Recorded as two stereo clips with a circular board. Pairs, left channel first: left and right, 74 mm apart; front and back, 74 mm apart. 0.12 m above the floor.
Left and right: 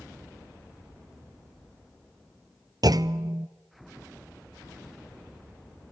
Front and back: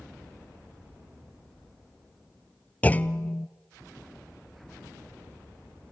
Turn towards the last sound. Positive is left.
turn(degrees=-70)